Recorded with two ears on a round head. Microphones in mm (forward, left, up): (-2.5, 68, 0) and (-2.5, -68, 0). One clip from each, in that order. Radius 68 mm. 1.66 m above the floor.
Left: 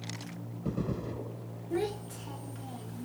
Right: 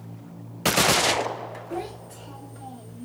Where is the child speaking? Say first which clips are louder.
Left 4 dB; 30° left (ahead or behind), 1.7 m; by 3.0 s 55° left (ahead or behind), 1.5 m.